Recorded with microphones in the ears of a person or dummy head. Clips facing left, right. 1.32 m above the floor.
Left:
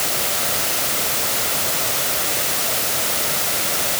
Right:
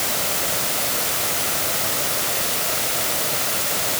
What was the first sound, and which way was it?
Only background noise.